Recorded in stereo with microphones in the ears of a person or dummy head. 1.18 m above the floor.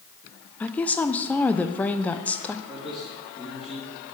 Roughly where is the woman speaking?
Centre.